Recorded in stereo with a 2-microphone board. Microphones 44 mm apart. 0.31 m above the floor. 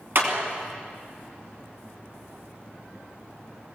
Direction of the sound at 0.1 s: 55° right (ahead or behind).